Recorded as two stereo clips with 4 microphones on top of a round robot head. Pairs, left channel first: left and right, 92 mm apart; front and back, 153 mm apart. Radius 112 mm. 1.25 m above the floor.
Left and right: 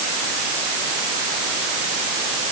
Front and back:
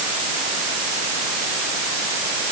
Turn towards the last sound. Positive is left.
No sound to turn to.